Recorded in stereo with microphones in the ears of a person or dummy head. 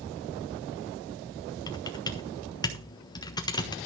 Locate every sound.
1.7 s typing on a keyboard: 20° left (ahead or behind), 1.4 m